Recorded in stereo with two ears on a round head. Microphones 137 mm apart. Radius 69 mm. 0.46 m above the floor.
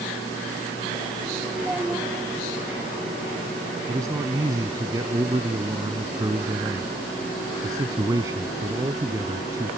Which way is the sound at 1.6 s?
5° right (ahead or behind).